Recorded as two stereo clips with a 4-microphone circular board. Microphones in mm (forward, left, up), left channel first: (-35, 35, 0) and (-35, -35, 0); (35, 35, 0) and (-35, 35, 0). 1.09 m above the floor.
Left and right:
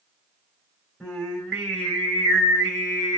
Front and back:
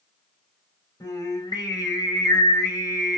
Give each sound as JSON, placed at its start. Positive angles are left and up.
{"t": 1.0, "sound": "singing", "azimuth_deg": 10, "distance_m": 1.8}